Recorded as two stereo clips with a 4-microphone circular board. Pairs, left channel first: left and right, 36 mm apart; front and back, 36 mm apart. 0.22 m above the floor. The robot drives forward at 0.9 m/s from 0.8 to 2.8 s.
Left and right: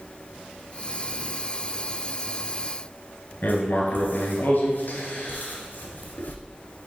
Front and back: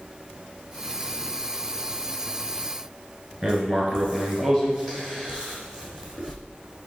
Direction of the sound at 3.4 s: 110° left.